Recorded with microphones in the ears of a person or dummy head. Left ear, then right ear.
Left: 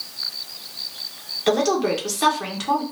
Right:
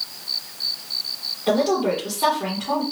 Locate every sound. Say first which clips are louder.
1.5 s a woman speaking: even; 60° left (ahead or behind), 1.1 m